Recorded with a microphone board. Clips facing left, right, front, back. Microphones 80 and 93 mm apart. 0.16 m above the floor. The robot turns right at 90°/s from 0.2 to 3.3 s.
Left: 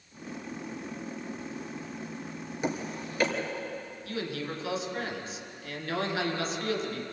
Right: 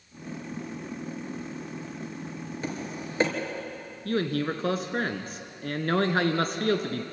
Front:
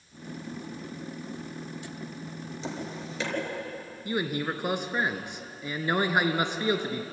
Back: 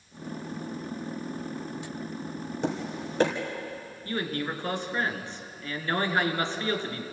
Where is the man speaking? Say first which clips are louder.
Right 8 dB, front 2 dB; 75° right, 2 m.